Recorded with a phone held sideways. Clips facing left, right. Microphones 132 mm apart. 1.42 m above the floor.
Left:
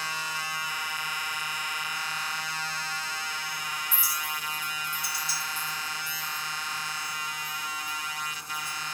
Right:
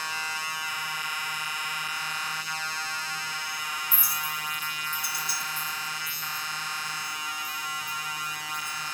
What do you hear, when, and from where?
3.9 s a clink: 55° right (ahead or behind), 0.9 m